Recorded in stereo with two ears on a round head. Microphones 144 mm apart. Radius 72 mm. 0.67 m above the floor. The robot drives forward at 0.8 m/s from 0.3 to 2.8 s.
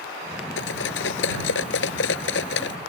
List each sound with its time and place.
0.6 s cutlery clinking: 80° left; by 2.8 s 85° left